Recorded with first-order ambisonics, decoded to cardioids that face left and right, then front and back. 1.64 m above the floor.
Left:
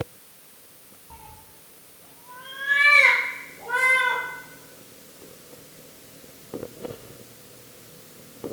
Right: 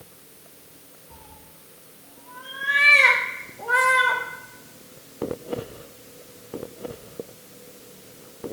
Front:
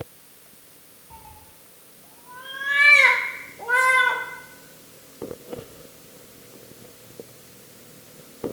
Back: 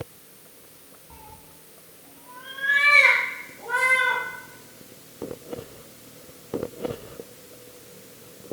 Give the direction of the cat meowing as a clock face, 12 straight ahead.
8 o'clock.